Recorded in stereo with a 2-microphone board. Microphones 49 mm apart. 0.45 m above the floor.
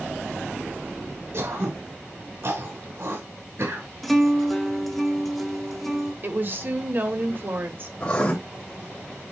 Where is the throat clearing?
65° right (ahead or behind), 3.5 m.